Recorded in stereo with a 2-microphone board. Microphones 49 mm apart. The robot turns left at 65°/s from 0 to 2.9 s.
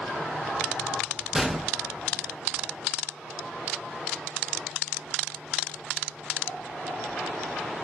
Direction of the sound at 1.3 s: 15° right (ahead or behind).